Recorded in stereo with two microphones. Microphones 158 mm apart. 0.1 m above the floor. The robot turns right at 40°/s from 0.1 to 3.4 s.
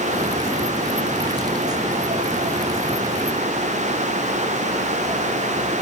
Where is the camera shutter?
No camera shutter in this recording.